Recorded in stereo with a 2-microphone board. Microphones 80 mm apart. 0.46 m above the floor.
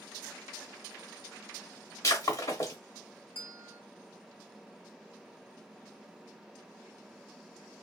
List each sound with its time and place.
2.0 s breaking glass: 45° left (ahead or behind), 1.4 m
3.4 s a bell: 30° right (ahead or behind), 0.8 m